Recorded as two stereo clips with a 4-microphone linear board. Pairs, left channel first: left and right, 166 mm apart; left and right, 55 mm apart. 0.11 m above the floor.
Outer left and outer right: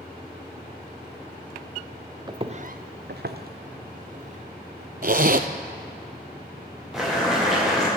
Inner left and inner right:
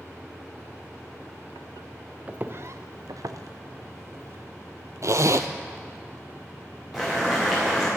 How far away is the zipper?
About 0.6 m.